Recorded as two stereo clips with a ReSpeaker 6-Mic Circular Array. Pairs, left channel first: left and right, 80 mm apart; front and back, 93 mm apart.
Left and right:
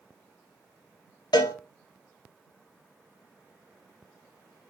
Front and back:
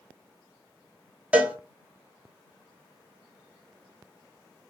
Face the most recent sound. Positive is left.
turn(degrees=105)